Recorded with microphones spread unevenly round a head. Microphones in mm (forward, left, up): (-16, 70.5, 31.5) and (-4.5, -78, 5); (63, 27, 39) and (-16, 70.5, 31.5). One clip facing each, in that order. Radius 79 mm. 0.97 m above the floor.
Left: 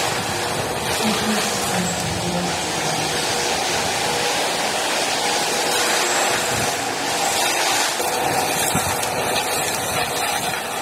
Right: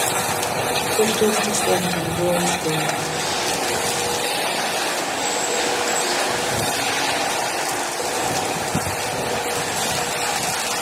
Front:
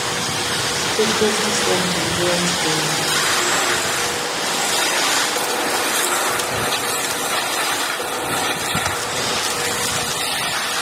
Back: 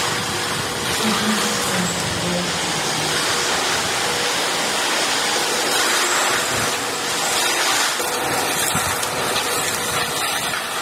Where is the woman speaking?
55° right, 3 m.